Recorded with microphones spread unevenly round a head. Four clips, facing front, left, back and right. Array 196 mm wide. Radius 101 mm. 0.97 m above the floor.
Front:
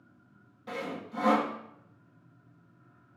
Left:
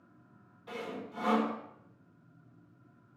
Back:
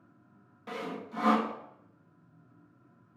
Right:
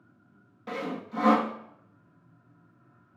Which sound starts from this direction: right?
Sawing, at 0.7 s.